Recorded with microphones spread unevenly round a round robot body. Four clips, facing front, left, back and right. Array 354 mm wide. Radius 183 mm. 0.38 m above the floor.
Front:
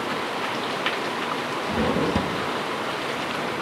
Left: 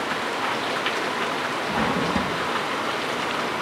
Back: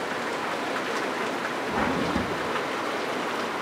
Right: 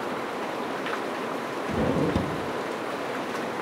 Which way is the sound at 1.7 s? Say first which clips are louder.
Even, front 3 dB; 30° right.